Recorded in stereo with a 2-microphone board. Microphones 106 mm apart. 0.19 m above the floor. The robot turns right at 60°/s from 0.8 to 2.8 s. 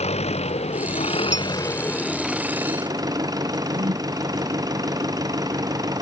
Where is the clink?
55° right (ahead or behind); by 1.5 s 50° right (ahead or behind).